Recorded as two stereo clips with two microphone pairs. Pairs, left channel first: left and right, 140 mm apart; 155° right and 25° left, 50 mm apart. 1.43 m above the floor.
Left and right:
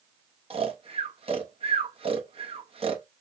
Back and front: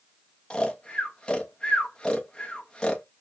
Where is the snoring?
95° right, 0.9 m.